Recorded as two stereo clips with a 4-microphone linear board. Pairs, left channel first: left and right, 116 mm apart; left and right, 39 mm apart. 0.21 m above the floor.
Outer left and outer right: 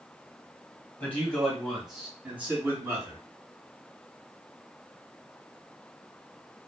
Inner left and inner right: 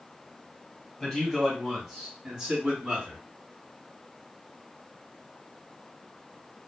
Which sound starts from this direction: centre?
A man speaking, at 1.0 s.